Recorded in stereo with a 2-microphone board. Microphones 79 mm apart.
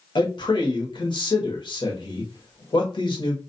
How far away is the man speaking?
About 1.0 m.